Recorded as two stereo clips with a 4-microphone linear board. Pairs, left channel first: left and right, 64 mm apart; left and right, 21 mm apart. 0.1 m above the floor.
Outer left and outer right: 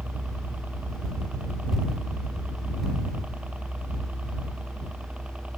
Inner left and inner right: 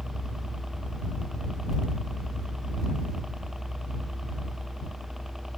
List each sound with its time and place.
0.0 s a helicopter: 25° right (ahead or behind); by 5.6 s 20° right (ahead or behind)